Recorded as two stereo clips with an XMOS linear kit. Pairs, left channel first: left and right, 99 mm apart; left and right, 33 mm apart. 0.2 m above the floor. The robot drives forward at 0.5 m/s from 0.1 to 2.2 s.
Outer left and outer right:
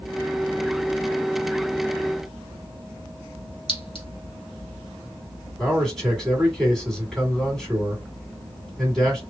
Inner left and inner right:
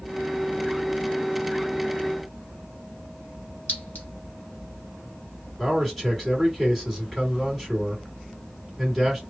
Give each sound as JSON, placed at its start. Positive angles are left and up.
{"t": 3.7, "sound": "a clink", "side_deg": 60, "distance_m": 1.5}
{"t": 5.6, "sound": "a man speaking", "side_deg": 5, "distance_m": 1.9}